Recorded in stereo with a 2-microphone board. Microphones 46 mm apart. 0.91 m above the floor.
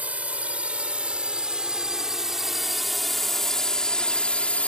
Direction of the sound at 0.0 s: 30° right (ahead or behind).